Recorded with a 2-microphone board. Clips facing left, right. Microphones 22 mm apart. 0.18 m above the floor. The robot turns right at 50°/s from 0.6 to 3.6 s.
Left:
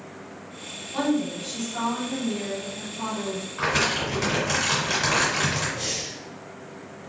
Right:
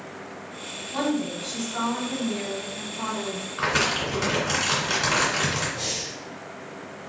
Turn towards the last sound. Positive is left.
turn(degrees=0)  # may be behind; listen again after turning